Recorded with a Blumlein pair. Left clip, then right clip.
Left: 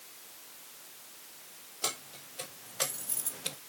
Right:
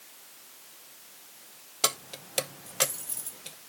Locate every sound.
1.8 s keys jangling: 65° right, 0.9 m; by 3.6 s 30° left, 0.7 m